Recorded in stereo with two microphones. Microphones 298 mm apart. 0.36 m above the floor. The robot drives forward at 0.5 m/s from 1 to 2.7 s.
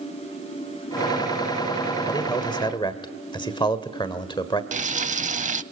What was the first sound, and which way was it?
A man speaking, 15° left (ahead or behind).